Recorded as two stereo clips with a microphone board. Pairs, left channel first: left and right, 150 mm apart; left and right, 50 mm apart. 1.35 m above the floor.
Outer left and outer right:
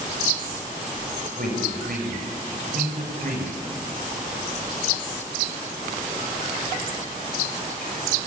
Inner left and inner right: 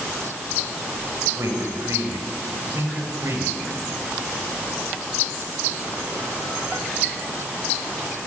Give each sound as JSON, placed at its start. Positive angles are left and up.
{"t": 1.4, "sound": "a man speaking", "side_deg": -80, "distance_m": 6.0}